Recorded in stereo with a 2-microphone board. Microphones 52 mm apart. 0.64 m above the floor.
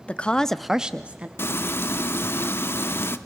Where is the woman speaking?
25° left (ahead or behind), 0.9 m; by 1.3 s 30° right (ahead or behind), 1.0 m.